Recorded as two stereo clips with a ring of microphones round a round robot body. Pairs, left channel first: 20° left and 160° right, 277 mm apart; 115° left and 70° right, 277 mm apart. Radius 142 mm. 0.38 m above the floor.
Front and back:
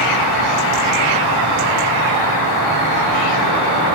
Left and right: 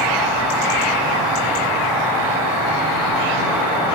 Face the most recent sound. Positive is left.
turn(degrees=15)